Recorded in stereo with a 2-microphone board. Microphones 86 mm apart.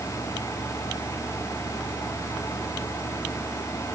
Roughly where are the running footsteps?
I don't hear running footsteps.